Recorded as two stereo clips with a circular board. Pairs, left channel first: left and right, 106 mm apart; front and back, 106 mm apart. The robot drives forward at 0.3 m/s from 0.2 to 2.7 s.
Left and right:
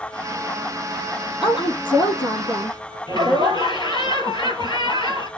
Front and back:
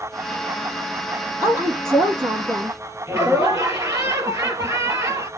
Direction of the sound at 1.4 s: 125° left.